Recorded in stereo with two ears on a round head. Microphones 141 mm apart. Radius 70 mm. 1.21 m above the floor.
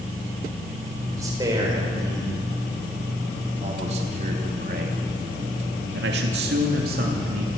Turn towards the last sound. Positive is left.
turn(degrees=-55)  # may be behind; listen again after turning